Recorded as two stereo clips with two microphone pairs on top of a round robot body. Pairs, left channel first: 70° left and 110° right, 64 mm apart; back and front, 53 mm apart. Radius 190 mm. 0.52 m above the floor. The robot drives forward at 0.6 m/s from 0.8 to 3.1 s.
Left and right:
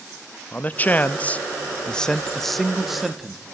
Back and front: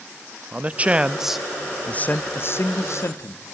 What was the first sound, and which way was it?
A man speaking, 25° left.